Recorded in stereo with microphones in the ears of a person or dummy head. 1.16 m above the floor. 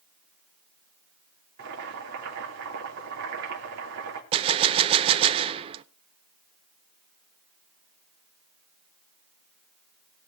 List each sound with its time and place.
1.6 s boiling: 65° right (ahead or behind), 3 m
4.3 s a gunshot: 30° right (ahead or behind), 0.6 m